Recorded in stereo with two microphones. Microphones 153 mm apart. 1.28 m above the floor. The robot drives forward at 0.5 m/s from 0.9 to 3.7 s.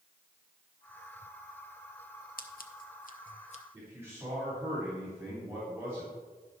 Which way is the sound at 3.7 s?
20° right (ahead or behind).